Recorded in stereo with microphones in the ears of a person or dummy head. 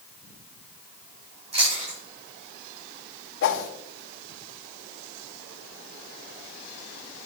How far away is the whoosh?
About 1.2 m.